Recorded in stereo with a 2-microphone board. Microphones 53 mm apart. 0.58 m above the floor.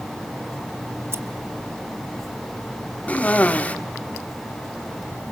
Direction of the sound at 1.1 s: 45° right (ahead or behind).